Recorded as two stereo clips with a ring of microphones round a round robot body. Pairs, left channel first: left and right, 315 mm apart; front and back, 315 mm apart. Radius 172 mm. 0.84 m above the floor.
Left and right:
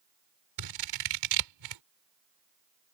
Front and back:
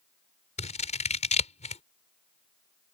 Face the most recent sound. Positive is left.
turn(degrees=-70)